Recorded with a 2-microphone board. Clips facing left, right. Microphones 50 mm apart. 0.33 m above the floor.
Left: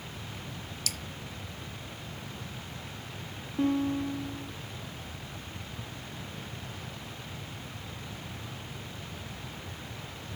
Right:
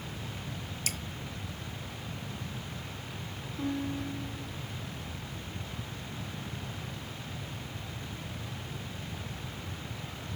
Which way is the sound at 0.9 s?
35° right (ahead or behind).